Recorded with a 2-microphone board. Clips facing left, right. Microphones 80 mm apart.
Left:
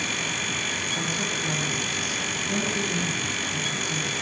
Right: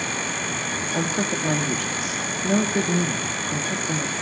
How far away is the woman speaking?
About 3 m.